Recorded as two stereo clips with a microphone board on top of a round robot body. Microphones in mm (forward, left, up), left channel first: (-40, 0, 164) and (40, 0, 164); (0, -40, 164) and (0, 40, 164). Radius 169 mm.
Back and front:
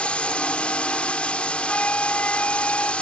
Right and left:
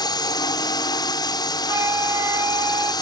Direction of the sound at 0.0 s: 105° right.